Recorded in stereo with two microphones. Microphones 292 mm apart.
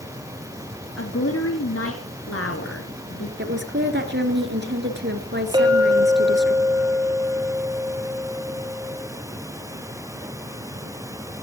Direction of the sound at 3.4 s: 40° right (ahead or behind).